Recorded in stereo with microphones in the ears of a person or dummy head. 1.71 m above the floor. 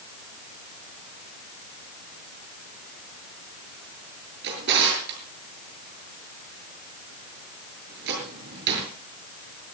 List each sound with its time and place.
4.4 s a drawer: 65° right (ahead or behind), 6.5 m